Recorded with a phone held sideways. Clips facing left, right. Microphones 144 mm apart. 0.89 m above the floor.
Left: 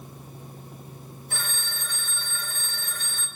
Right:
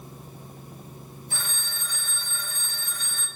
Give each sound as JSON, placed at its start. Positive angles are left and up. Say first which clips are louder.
{"t": 1.3, "sound": "a phone ringing", "louder": "left 3 dB", "side_deg": 60, "distance_m": 2.5}